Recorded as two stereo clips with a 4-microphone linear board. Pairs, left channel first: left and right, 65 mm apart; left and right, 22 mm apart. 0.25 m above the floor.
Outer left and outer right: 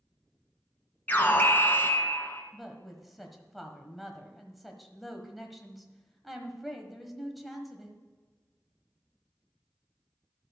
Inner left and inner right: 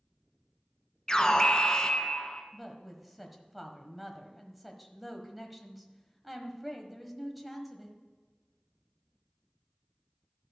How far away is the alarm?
About 1.5 m.